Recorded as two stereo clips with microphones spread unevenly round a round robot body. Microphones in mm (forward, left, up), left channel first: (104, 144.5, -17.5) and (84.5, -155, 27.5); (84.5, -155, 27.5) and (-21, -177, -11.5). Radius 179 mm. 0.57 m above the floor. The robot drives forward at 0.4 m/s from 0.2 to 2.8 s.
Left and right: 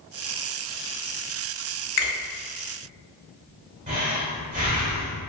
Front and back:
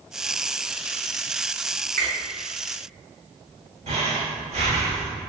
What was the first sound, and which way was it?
A finger snap, 110° left.